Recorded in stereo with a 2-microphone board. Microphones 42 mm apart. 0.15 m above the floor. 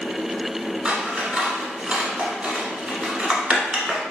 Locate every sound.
0.8 s scissors: 25° right (ahead or behind), 1.0 m